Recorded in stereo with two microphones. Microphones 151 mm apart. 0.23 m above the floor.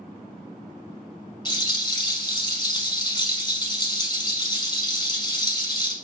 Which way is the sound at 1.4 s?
30° left (ahead or behind).